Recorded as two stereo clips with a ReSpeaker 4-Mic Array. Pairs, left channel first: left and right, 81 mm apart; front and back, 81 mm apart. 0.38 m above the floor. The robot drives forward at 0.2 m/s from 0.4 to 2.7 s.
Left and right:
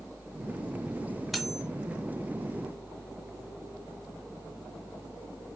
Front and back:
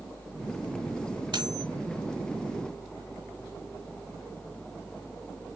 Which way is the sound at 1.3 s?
Straight behind.